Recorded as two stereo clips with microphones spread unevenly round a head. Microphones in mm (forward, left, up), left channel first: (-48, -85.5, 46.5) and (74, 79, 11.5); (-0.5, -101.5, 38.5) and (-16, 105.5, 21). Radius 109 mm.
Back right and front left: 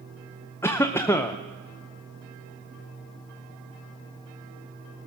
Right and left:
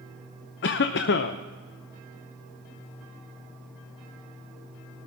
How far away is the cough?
About 0.6 m.